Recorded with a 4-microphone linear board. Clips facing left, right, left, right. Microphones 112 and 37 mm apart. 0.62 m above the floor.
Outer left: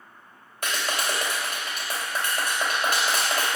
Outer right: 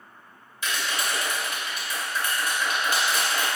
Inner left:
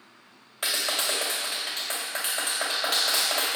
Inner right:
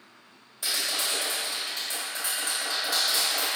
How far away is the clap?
About 2.5 m.